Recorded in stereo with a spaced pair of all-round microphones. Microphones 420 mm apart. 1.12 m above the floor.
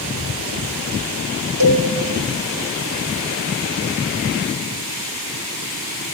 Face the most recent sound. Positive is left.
turn(degrees=-55)  # may be behind; listen again after turning